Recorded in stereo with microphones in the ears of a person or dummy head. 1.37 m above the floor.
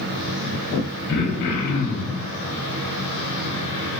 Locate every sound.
1.1 s throat clearing: 55° left (ahead or behind), 0.6 m